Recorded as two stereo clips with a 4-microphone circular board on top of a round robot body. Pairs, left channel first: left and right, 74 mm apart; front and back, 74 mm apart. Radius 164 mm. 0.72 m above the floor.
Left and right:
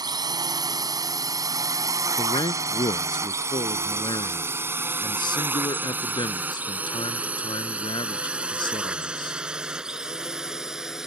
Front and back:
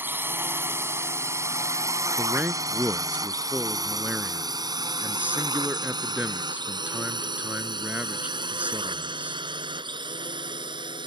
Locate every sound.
0.0 s a drone: 120° right; by 11.1 s 175° right
2.2 s a man speaking: 110° left